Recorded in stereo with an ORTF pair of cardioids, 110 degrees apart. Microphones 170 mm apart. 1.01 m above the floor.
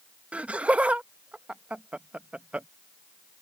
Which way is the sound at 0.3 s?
10° right.